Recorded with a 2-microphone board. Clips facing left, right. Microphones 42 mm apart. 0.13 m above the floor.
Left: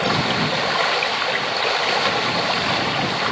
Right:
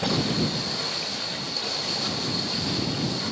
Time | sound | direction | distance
0.0 | running water | 60° left (ahead or behind) | ?